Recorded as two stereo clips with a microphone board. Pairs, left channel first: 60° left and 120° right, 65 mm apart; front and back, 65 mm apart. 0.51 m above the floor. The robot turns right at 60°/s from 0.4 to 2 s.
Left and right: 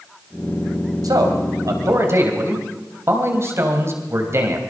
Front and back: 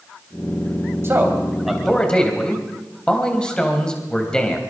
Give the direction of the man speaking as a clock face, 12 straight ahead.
4 o'clock.